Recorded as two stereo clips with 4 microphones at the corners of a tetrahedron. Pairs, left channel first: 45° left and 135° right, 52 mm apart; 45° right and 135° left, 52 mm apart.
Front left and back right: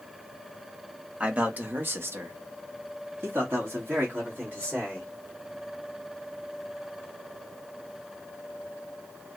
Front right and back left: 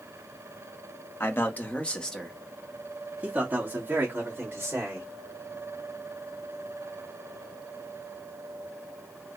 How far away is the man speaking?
About 0.9 m.